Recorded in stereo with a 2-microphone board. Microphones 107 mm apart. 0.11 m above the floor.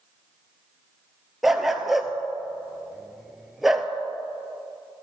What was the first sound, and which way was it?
A dog barking, 5° right (ahead or behind).